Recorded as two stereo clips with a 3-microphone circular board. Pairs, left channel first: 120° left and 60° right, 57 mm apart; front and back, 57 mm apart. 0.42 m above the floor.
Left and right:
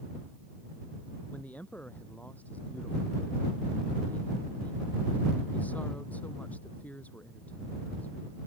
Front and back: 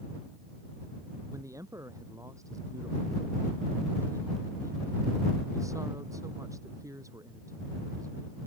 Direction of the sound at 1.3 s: Straight behind.